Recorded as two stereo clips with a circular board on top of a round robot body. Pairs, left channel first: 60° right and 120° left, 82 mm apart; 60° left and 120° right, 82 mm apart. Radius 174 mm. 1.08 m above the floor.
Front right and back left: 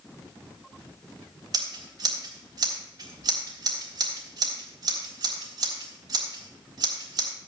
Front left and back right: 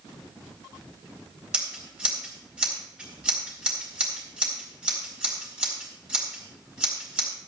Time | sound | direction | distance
1.5 | scissors | 160° left | 3.5 m